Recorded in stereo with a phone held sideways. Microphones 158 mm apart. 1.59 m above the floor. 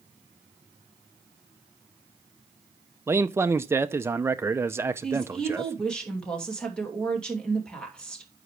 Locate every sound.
3.1 s a man speaking: 15° right (ahead or behind), 0.6 m
5.0 s a woman speaking: 5° left (ahead or behind), 2.5 m